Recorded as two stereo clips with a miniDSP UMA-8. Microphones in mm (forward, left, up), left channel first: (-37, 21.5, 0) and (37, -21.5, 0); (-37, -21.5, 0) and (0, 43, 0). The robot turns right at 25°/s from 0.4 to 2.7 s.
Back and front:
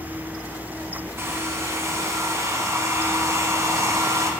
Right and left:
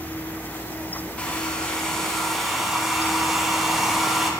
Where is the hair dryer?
65° right, 0.6 m; by 4.3 s 25° right, 0.6 m.